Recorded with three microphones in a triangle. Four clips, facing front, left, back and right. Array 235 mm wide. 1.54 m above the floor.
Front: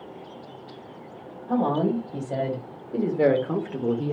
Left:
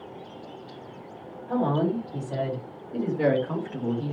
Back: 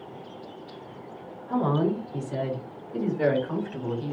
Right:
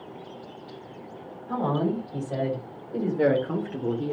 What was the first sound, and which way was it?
A woman speaking, 5° right.